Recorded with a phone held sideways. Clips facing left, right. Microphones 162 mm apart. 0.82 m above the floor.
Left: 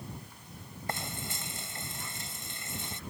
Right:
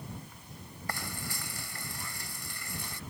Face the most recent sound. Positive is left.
turn(degrees=20)  # may be behind; listen again after turning